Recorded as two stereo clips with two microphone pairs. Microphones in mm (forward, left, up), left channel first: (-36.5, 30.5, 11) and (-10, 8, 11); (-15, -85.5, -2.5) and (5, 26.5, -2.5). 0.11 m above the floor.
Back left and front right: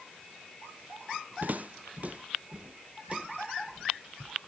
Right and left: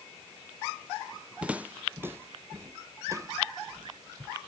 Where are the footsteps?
Straight ahead; by 4.3 s 25° left.